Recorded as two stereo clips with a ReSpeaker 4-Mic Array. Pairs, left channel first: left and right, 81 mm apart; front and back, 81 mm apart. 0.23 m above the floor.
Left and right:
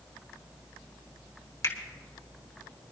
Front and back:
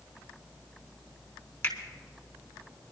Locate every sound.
1.6 s a finger snap: 65° left, 3 m